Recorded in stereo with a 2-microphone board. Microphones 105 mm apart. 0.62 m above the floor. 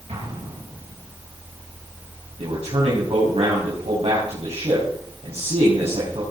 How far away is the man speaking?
About 4 m.